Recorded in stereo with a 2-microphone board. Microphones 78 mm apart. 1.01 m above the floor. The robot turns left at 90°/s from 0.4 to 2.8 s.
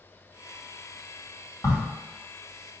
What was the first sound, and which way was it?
A crack, 45° left (ahead or behind).